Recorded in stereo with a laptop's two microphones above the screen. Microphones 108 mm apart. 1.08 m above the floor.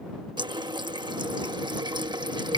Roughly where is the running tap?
Right.